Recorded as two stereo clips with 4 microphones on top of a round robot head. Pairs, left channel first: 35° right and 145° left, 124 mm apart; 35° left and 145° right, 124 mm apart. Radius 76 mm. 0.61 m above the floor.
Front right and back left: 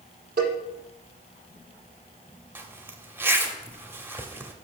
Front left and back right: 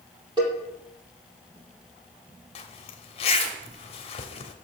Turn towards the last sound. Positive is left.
turn(degrees=75)